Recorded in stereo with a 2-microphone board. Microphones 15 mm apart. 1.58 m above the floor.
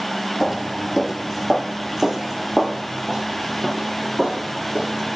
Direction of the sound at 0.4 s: 15° right (ahead or behind).